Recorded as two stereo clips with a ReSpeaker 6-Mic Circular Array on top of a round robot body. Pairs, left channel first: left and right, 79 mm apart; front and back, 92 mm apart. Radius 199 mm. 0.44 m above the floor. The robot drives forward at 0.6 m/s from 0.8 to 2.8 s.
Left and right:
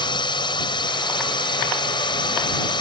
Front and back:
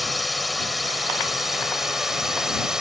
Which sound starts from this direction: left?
A drone, at 0.0 s.